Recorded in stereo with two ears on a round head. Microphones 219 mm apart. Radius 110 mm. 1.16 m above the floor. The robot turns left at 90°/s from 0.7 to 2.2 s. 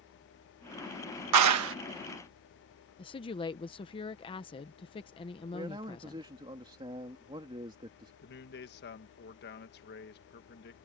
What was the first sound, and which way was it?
A clap, 90° right.